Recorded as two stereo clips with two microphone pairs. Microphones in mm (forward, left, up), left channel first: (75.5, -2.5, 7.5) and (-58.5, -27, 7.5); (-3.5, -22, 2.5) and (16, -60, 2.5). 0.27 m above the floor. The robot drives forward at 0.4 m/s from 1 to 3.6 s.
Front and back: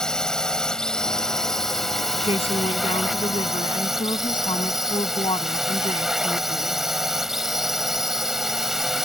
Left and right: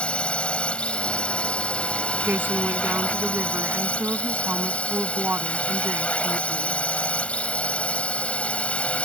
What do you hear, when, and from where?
0.0 s a drone: 90° left; by 9.1 s 105° left
2.2 s a woman speaking: 30° right; by 6.8 s 35° right